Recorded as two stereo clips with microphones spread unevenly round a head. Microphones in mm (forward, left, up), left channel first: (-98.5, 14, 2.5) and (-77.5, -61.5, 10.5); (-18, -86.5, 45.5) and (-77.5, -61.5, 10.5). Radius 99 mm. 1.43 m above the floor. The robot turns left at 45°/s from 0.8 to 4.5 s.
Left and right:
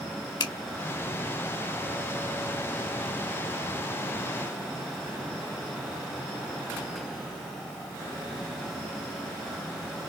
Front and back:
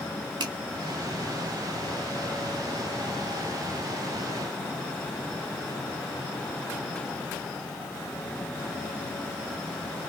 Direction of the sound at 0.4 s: 125° left.